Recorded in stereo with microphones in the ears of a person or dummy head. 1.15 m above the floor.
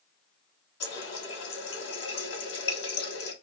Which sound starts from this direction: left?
A running tap, at 0.8 s.